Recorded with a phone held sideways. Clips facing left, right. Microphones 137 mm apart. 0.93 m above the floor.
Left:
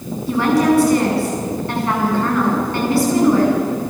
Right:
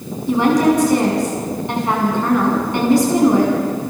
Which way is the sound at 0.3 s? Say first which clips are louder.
Right 1 dB; 20° right (ahead or behind).